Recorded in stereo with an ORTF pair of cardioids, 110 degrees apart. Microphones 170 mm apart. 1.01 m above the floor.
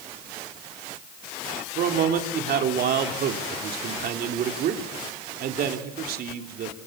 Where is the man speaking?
65° right, 3 m.